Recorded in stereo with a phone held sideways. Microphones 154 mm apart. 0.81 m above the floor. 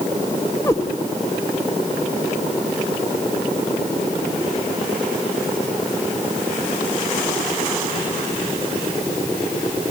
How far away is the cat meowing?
About 1.9 m.